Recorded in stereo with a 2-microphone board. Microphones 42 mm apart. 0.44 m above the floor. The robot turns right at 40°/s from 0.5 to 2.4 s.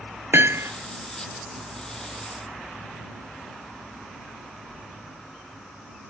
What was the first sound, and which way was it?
Hammering, 65° right (ahead or behind).